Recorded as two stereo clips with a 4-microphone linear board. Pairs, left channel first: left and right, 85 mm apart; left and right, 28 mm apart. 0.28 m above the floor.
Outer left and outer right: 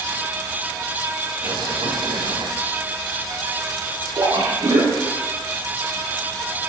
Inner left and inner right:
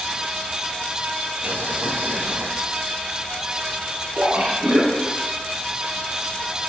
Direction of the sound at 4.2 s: 65° right (ahead or behind).